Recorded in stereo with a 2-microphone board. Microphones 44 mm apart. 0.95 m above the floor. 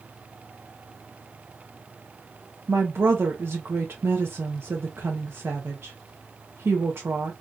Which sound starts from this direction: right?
A woman speaking, at 2.7 s.